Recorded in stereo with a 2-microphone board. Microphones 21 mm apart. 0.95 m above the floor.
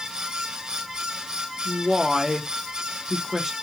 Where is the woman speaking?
10° right (ahead or behind), 0.8 m.